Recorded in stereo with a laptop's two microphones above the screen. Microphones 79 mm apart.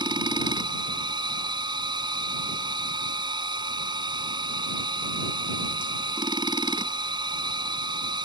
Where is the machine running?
75° right (ahead or behind).